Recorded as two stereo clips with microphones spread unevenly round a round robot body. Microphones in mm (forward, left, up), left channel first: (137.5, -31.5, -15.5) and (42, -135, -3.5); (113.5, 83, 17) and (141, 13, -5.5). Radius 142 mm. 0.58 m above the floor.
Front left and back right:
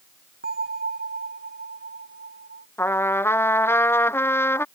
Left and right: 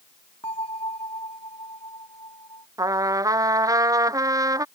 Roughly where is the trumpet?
Ahead right.